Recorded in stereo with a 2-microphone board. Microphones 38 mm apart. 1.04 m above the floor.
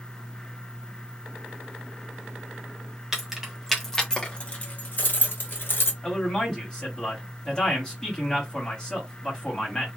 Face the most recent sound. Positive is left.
turn(degrees=15)  # may be behind; listen again after turning